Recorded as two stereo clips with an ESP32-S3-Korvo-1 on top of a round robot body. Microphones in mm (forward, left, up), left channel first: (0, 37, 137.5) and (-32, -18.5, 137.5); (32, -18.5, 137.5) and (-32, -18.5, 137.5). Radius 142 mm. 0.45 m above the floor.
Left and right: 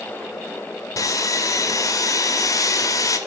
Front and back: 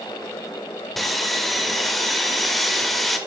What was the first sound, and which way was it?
Sawing, 90° left.